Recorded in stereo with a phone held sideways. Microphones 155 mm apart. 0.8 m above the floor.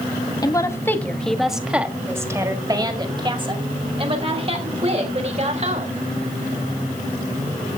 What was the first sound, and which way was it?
A woman speaking, 25° left (ahead or behind).